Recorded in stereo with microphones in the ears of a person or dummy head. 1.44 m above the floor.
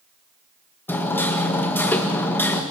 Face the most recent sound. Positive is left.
turn(degrees=10)  # may be behind; listen again after turning